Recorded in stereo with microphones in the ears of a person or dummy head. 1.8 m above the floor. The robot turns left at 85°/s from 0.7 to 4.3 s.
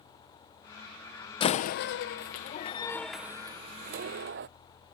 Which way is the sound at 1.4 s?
25° left (ahead or behind).